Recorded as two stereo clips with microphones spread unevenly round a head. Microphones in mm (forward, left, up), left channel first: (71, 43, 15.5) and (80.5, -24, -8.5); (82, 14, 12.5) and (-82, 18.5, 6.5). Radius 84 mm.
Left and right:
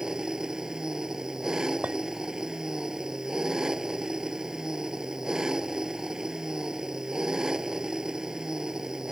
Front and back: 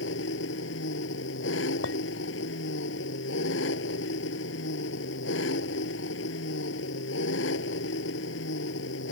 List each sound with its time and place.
0.0 s an engine running: straight ahead
1.8 s a clink: 10° right